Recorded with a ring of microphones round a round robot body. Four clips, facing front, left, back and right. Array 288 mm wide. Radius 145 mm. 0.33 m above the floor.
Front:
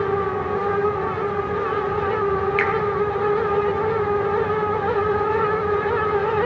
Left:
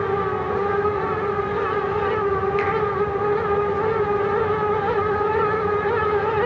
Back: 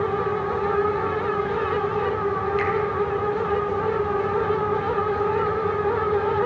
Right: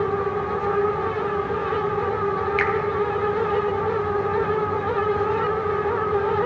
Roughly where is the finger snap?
Ahead right.